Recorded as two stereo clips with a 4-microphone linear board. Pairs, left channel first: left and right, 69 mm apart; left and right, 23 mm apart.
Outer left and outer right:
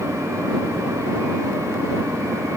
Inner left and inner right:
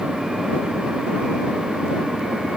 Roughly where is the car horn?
I don't hear a car horn.